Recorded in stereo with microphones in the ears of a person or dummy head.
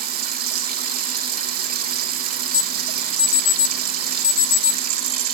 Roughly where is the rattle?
I don't hear a rattle.